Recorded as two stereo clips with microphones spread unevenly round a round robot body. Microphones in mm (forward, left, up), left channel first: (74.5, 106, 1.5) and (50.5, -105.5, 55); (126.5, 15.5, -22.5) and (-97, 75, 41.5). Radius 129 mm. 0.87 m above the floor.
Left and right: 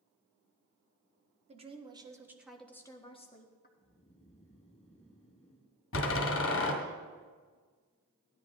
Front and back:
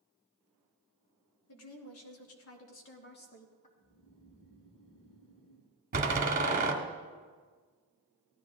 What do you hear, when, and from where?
1.5 s a woman speaking: 35° right, 1.9 m; by 3.7 s 40° left, 1.6 m
3.8 s snoring: 20° left, 6.5 m
5.9 s a door slam: 110° left, 2 m